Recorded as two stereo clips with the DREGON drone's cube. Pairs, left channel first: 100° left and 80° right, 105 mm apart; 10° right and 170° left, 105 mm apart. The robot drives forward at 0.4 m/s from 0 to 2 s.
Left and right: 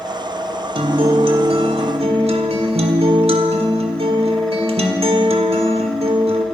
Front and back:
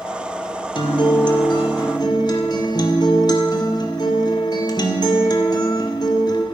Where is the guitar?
50° right, 2 m; by 6.5 s 60° right, 1.8 m.